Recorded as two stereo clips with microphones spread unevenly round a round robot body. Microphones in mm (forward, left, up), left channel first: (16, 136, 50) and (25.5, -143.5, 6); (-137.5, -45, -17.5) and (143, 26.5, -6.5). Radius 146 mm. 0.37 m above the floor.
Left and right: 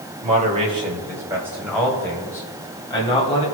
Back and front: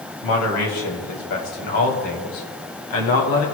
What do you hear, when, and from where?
0.2 s a man speaking: 145° right, 2.5 m; by 3.5 s 165° left, 2.5 m